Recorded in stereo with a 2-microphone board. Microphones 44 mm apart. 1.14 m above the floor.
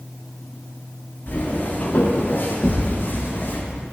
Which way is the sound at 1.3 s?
45° left (ahead or behind).